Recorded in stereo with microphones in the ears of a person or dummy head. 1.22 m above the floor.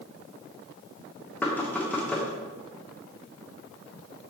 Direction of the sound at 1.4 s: 5° left (ahead or behind).